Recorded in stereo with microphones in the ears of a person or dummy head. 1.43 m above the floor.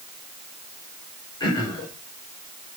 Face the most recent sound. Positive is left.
turn(degrees=20)  # may be behind; listen again after turning